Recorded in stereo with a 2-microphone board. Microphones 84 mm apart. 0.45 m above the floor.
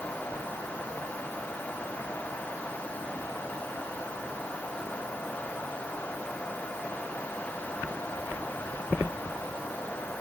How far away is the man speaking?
No man speaking in this recording.